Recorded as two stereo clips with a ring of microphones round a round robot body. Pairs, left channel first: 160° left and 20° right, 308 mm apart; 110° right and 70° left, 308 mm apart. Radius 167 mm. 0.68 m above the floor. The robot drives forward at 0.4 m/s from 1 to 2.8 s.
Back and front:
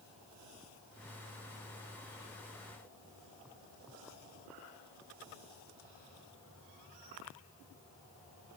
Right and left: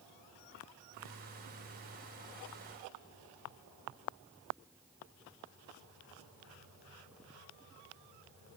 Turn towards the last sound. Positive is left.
No sound to turn to.